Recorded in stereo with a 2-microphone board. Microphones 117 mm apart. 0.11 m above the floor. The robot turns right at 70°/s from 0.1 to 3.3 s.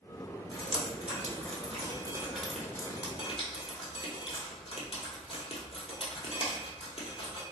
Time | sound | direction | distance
0.5 | dripping | 40° right (ahead or behind) | 1.0 m